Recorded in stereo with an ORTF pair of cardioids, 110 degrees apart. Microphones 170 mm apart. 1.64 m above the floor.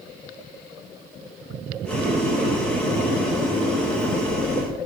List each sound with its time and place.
1.9 s boiling: 5° left, 3 m